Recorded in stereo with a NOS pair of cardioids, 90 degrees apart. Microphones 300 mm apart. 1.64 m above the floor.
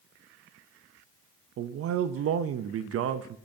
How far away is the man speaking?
About 0.5 m.